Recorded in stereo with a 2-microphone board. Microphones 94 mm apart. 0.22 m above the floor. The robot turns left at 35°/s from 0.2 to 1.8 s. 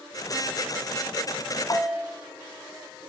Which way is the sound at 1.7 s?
40° left (ahead or behind).